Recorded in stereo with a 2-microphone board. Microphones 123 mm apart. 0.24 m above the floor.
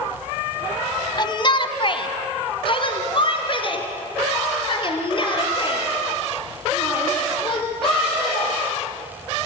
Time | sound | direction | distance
1.2 | a shout | 35° left (ahead or behind) | 1.2 m